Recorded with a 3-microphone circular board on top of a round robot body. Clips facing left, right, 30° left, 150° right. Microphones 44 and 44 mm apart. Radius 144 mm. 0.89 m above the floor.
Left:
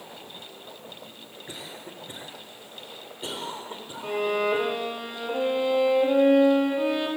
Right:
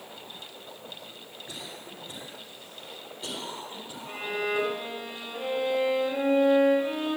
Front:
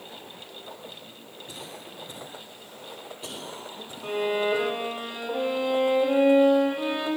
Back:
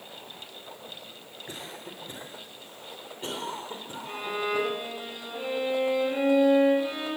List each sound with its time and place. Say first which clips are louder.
1.5 s a cough: left 2 dB, back 1 dB; 155° left, 3.5 m
4.0 s a violin: left 6 dB, front 6 dB; 65° left, 6.5 m